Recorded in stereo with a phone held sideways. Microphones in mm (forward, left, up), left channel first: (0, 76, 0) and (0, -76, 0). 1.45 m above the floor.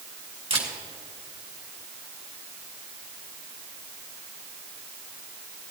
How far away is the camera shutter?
About 2.5 m.